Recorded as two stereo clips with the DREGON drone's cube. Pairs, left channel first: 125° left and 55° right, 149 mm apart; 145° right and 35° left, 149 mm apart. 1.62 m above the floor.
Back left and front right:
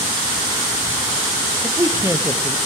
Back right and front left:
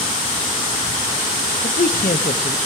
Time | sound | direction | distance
1.6 | a man speaking | 130° right | 0.8 m